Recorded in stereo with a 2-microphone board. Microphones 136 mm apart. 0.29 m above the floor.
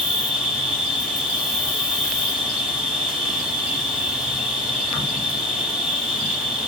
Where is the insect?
5° right (ahead or behind), 0.9 m.